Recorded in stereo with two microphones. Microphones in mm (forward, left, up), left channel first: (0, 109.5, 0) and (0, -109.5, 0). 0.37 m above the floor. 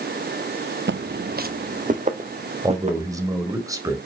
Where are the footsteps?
55° right (ahead or behind), 0.5 m; by 3.6 s 30° right (ahead or behind), 3.5 m.